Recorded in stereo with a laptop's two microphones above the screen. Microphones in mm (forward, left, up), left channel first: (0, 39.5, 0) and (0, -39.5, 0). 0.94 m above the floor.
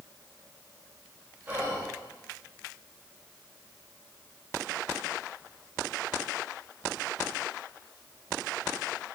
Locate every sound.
1.5 s whispering: 30° right (ahead or behind), 2 m